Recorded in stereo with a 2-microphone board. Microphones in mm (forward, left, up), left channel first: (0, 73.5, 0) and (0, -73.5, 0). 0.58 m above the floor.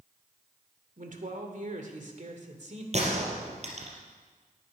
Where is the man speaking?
60° right (ahead or behind), 2 m; by 2.8 s 50° right (ahead or behind), 2 m.